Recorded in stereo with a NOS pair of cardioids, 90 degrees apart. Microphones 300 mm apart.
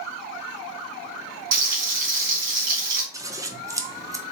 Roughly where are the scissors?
Ahead.